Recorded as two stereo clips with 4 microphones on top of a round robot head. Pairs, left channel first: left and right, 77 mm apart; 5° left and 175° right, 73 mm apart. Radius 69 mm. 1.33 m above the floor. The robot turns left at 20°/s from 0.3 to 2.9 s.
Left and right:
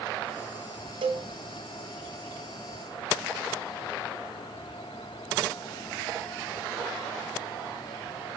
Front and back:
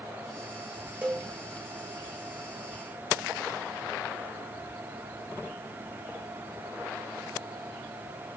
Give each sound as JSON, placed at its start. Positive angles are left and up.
{"t": 1.0, "sound": "a cowbell", "azimuth_deg": -100, "distance_m": 1.6}